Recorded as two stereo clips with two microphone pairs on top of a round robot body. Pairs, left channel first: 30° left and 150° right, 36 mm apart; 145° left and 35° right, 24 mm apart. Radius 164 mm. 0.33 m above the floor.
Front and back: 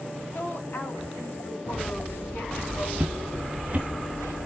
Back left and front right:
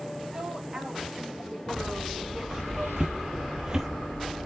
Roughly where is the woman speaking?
Ahead.